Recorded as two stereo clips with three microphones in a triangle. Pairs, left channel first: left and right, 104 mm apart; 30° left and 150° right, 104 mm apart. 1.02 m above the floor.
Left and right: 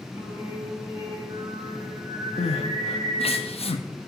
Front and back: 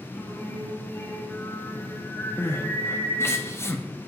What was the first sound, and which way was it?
Singing, 35° right.